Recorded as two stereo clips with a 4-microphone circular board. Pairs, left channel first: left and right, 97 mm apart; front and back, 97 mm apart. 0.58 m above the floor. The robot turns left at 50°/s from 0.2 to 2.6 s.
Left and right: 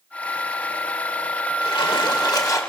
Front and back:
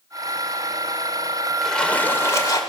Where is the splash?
90° left, 2.0 m; by 2.6 s 40° left, 2.0 m.